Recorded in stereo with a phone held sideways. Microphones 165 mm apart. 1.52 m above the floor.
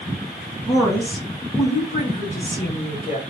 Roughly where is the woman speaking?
Centre.